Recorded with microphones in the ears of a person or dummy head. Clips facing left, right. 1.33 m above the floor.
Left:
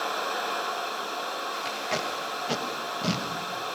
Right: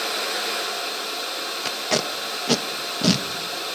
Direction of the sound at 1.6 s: 60° right (ahead or behind).